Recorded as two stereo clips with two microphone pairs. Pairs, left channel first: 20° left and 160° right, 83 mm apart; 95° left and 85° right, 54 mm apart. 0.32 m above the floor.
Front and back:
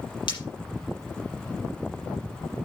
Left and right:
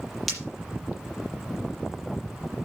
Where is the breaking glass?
5° left, 5.5 m.